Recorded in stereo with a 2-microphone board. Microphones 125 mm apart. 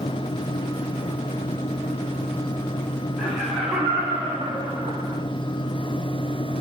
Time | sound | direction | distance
3.2 | laughter | centre (ahead or behind) | 1.6 m